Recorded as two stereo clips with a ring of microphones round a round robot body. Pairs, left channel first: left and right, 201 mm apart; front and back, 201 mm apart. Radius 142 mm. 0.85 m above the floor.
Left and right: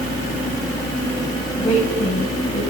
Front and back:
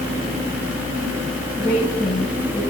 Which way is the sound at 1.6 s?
30° left.